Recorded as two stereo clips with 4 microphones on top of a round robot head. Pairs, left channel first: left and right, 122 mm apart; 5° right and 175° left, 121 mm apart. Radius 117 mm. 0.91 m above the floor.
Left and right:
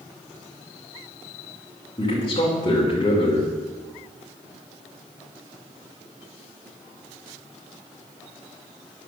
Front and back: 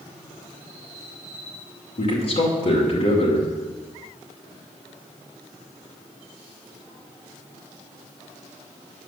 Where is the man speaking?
30° left, 2.5 m.